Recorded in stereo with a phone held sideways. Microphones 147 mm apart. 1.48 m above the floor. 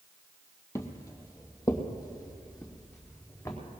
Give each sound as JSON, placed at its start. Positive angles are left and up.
{"t": 0.8, "sound": "footsteps", "side_deg": 20, "distance_m": 1.5}